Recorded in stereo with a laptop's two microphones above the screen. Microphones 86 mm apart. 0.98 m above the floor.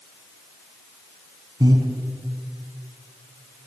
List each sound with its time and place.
1.6 s breathing: 50° right (ahead or behind), 3.5 m